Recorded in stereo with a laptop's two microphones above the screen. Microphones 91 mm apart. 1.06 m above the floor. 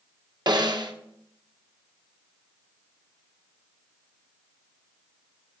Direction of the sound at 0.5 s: 50° right (ahead or behind).